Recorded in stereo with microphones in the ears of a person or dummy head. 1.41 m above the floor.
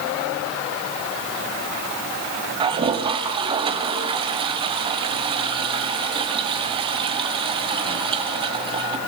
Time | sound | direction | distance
2.6 | a toilet flushing | 20° right (ahead or behind) | 1.9 m